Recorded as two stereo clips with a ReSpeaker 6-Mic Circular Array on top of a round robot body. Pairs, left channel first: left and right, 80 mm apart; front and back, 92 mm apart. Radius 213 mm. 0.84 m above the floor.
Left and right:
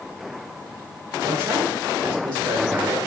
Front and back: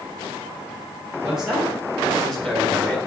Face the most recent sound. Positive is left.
turn(degrees=-75)